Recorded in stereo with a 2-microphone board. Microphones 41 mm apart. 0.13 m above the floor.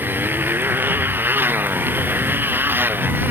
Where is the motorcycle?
55° right (ahead or behind).